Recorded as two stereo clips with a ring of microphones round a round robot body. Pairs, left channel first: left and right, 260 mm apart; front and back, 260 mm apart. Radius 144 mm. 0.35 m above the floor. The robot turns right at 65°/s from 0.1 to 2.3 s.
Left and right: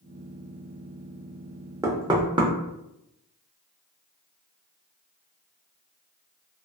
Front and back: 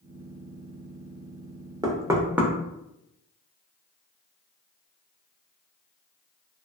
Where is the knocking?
140° right, 0.5 m; by 2.5 s 110° right, 0.5 m.